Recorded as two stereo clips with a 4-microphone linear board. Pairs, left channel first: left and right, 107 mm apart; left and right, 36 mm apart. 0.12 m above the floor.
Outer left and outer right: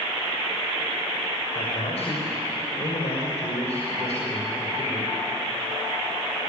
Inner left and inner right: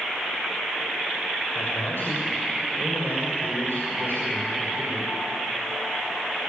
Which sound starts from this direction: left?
A man speaking, at 1.6 s.